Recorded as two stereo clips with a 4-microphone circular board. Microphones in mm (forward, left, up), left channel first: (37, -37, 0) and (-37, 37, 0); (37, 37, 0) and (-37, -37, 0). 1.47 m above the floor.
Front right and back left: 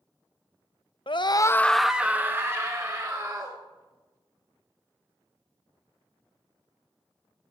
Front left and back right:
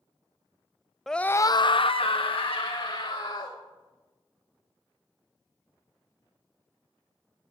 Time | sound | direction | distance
1.1 | a scream | 40° right | 0.7 m